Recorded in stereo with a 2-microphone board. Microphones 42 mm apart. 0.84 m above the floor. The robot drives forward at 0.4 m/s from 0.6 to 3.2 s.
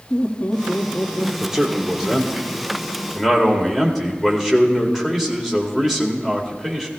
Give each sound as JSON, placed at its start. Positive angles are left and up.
{"t": 0.1, "sound": "laughter", "side_deg": 50, "distance_m": 1.6}
{"t": 1.4, "sound": "a man speaking", "side_deg": -15, "distance_m": 1.8}